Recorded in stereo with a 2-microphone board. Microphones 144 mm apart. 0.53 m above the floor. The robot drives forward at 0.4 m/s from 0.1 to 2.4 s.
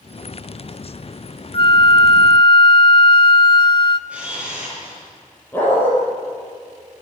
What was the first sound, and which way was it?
A flute, 40° left (ahead or behind).